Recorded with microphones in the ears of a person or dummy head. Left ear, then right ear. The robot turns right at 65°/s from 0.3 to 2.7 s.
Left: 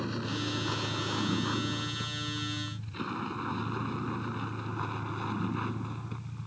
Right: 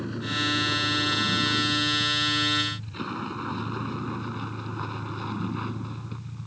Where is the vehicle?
30° left (ahead or behind); by 6.5 s 20° left (ahead or behind).